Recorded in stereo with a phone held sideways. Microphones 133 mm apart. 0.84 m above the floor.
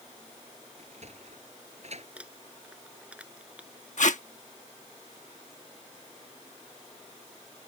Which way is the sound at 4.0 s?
70° left (ahead or behind).